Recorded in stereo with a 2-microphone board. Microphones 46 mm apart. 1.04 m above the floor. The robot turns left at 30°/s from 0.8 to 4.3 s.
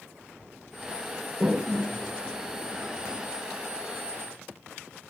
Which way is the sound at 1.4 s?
5° right (ahead or behind).